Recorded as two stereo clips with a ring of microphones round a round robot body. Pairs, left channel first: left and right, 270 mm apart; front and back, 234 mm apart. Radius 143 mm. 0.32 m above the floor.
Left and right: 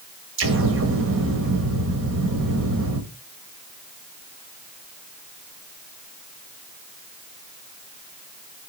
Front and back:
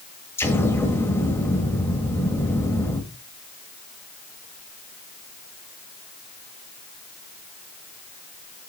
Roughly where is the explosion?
Right.